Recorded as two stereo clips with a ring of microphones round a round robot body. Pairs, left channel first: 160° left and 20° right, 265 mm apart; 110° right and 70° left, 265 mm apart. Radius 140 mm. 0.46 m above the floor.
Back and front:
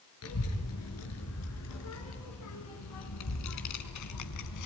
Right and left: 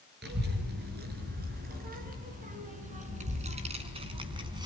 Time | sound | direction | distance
0.2 | a child speaking | 120° left | 6 m